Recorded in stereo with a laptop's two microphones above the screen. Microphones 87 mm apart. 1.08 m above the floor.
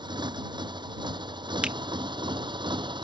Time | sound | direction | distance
0.0 | a motorcycle | 60° right (ahead or behind) | ?
1.6 | a finger snap | 15° right (ahead or behind) | ?